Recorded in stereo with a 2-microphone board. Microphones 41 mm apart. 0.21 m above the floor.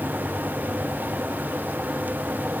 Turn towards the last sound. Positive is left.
No sound to turn to.